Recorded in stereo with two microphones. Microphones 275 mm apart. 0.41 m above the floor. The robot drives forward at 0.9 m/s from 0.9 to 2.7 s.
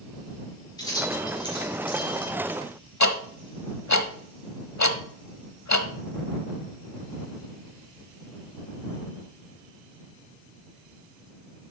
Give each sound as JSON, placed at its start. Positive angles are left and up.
{"t": 0.8, "sound": "keys jangling", "side_deg": 15, "distance_m": 5.0}
{"t": 3.0, "sound": "ticking", "side_deg": 80, "distance_m": 0.7}